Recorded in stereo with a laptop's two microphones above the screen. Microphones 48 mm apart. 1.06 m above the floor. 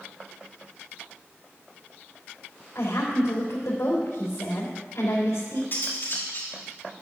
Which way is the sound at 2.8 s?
75° left (ahead or behind).